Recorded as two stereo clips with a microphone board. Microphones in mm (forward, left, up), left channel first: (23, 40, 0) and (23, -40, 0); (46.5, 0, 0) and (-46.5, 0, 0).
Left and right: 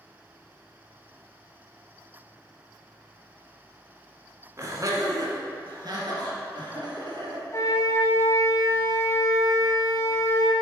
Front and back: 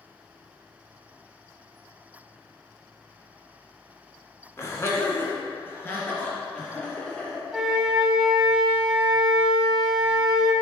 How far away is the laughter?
About 1.6 m.